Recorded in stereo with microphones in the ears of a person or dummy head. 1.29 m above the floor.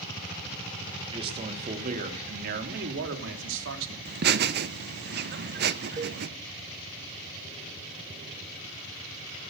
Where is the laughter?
55° right (ahead or behind), 1.1 m.